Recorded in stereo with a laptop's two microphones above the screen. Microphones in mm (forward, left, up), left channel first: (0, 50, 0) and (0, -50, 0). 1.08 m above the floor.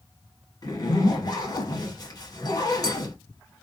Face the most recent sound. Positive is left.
turn(degrees=40)  # may be behind; listen again after turning